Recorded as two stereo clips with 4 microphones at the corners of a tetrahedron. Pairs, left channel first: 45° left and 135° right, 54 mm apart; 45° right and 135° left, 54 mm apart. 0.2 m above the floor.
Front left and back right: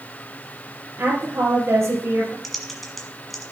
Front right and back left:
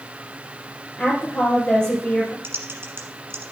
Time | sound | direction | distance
1.0 | a woman speaking | 120° right | 2.5 m
2.4 | typing on a keyboard | 135° left | 1.5 m